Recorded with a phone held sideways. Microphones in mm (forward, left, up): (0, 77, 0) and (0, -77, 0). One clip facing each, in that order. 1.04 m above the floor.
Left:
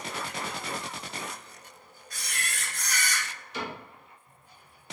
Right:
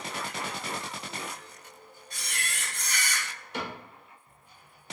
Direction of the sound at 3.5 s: 60° right (ahead or behind).